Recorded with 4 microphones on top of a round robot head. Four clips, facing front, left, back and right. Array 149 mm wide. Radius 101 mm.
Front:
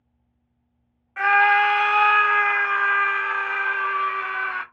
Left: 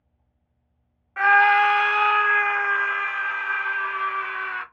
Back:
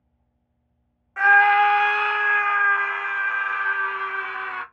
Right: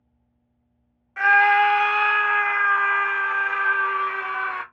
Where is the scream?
120° left, 1.1 m; by 4.6 s 50° right, 1.7 m.